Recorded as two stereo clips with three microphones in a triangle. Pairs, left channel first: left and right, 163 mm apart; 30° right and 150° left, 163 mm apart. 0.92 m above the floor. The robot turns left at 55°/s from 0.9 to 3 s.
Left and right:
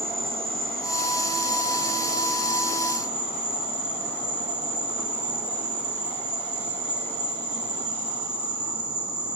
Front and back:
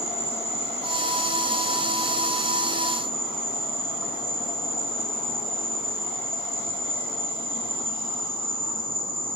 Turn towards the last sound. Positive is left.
turn(degrees=165)